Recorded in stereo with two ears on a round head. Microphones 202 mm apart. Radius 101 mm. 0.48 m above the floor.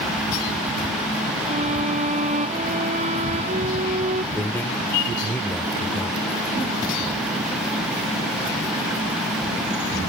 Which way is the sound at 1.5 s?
30° right (ahead or behind).